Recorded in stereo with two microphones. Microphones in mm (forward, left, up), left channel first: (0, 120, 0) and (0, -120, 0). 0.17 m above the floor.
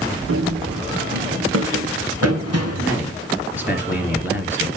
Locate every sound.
0.3 s running footsteps: 60° right (ahead or behind), 1.4 m; by 2.9 s 85° right, 3 m
2.8 s a man speaking: 5° right (ahead or behind), 3.5 m